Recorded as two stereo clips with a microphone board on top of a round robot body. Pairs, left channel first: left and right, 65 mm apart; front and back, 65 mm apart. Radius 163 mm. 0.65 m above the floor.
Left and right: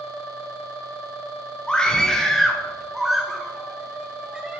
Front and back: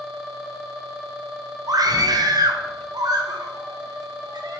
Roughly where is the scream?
Behind.